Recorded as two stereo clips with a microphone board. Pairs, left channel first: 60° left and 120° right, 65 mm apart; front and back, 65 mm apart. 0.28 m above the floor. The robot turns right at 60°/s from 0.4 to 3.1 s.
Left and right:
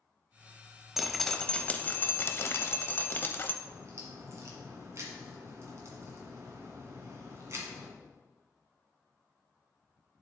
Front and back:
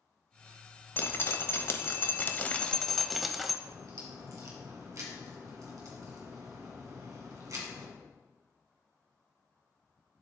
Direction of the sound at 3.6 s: 160° right.